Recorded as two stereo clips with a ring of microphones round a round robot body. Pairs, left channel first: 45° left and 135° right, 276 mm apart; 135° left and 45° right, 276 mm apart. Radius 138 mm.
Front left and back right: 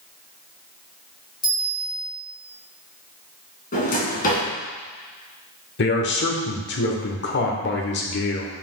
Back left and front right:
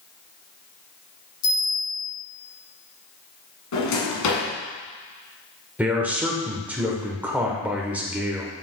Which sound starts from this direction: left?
A drawer, at 3.7 s.